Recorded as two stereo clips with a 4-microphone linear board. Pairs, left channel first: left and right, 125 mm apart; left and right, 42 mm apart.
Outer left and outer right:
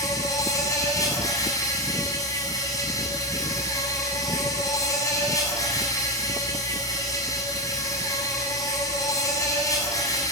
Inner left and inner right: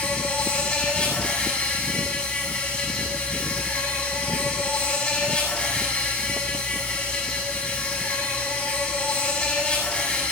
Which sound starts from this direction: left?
An insect, at 0.0 s.